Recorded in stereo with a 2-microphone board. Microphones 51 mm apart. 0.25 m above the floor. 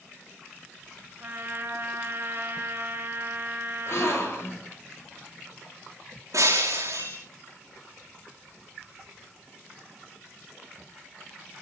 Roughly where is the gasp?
Left.